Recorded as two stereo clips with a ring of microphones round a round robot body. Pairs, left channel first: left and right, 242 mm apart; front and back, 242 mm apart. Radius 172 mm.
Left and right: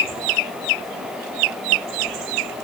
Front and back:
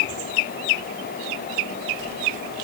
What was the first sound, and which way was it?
Only background noise.